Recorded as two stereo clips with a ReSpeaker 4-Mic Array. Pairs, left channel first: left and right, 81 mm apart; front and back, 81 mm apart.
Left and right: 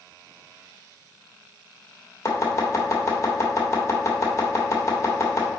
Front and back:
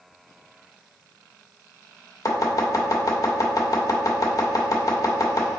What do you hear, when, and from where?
2.2 s chopping: 40° left, 1.4 m